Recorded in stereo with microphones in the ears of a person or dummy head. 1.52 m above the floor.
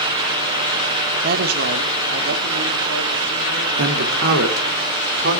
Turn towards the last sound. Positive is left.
turn(degrees=-80)